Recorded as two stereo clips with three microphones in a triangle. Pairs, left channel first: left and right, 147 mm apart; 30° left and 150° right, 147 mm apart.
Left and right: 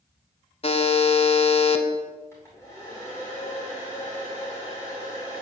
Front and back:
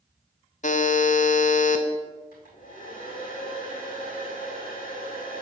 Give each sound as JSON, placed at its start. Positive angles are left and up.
{"t": 0.6, "sound": "a buzzer", "azimuth_deg": 50, "distance_m": 0.5}
{"t": 2.3, "sound": "a hair dryer", "azimuth_deg": 15, "distance_m": 2.0}